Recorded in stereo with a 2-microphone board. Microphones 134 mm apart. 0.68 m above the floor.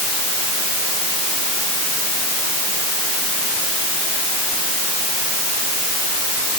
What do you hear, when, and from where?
Only background noise.